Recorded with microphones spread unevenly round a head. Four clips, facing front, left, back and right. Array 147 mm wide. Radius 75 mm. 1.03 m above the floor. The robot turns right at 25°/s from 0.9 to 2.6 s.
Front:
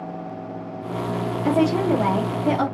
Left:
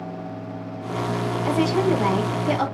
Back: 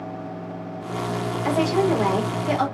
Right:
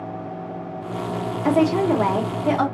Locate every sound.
1.4 s a woman speaking: 85° right, 3 m; by 2.6 s 55° right, 3 m